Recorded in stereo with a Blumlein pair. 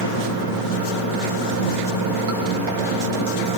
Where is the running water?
50° right, 7 m.